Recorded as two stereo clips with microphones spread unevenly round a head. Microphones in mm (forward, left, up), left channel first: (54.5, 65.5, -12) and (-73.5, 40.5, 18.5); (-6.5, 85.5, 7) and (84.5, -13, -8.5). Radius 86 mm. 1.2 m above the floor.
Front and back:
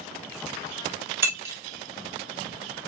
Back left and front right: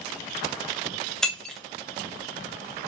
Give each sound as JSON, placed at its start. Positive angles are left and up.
{"t": 1.2, "sound": "breaking glass", "azimuth_deg": -155, "distance_m": 0.5}